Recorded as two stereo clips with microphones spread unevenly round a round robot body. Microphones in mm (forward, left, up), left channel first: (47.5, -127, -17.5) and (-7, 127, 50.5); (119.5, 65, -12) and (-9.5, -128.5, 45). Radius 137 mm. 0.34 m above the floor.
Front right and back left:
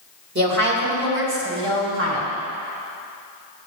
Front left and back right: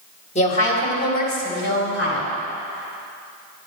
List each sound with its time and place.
0.3 s a woman speaking: 55° left, 1.7 m; by 2.3 s 60° left, 2.5 m